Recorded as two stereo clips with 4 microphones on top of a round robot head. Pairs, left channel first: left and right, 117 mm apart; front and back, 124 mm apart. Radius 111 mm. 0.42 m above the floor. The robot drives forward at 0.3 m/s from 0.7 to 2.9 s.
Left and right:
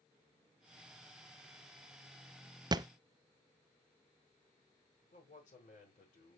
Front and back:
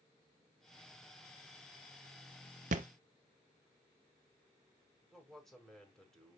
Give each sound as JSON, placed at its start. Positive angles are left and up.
{"t": 2.7, "sound": "a thud", "azimuth_deg": -145, "distance_m": 0.6}
{"t": 5.1, "sound": "a man speaking", "azimuth_deg": 85, "distance_m": 5.0}